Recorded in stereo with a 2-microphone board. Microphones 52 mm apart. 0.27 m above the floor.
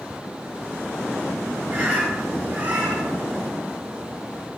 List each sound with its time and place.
1.7 s a bird: 25° right (ahead or behind), 1.8 m